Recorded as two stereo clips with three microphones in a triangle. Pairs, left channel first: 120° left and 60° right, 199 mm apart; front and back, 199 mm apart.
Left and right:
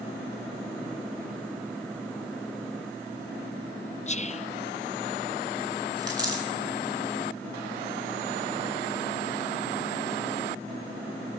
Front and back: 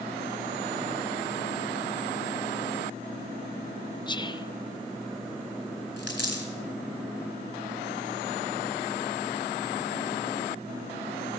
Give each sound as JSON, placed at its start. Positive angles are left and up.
{"t": 4.1, "sound": "whispering", "azimuth_deg": 65, "distance_m": 0.6}
{"t": 6.0, "sound": "a dropped coin", "azimuth_deg": 10, "distance_m": 4.0}